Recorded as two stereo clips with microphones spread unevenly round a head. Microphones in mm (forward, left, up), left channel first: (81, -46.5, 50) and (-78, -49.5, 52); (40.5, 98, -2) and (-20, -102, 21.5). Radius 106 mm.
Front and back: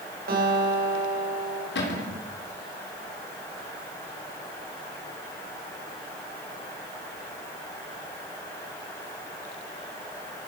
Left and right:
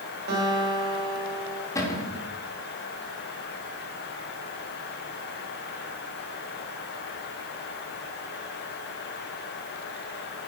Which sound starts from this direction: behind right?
A guitar, at 0.3 s.